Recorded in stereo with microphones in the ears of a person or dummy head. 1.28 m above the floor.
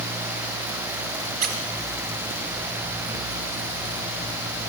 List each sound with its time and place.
1.4 s a squeak: 45° right (ahead or behind), 2 m